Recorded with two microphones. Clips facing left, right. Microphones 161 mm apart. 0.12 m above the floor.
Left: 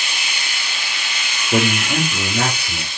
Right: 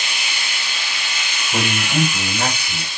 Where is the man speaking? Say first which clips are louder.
Left 3 dB; 65° left (ahead or behind), 5.5 m.